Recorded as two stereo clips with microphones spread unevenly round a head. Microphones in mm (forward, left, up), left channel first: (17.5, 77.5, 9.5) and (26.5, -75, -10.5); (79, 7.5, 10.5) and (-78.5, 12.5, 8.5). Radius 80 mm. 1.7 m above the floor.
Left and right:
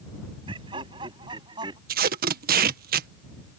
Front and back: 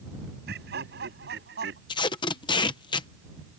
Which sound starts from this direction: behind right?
Laughter, at 0.5 s.